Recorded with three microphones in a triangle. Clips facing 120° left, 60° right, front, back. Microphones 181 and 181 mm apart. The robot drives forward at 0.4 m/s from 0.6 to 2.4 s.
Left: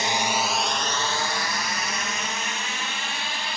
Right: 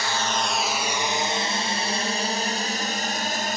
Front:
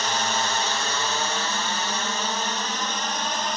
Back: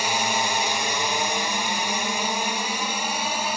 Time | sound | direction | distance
0.0 | a drone | 125° left | ?